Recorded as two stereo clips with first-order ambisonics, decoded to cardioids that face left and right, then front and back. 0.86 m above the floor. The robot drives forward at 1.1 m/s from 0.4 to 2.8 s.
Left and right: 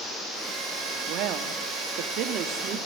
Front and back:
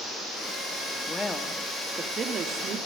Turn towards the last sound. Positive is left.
turn(degrees=-135)